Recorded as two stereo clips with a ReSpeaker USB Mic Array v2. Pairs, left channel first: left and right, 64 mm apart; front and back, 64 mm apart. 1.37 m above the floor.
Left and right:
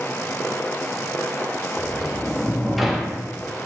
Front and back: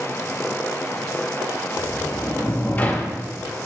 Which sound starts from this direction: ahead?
A sliding door, at 1.8 s.